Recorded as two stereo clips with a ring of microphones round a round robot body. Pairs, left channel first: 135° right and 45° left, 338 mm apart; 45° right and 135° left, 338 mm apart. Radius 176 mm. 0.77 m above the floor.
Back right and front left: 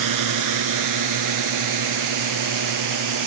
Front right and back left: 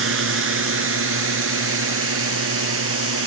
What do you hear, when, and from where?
0.0 s a drone: 80° left